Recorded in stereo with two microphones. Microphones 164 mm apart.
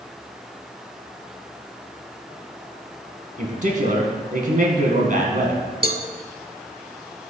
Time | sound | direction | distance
3.4 | a man speaking | 55° right (ahead or behind) | 2 m
5.8 | a cowbell | 65° right (ahead or behind) | 0.7 m